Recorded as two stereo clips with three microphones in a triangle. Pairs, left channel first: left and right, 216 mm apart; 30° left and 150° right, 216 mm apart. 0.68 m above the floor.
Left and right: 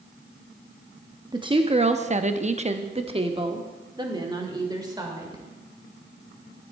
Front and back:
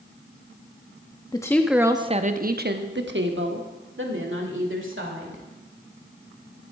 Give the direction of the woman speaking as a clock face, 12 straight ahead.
1 o'clock.